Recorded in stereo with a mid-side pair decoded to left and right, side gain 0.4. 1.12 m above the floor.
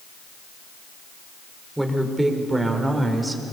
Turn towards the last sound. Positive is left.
turn(degrees=-30)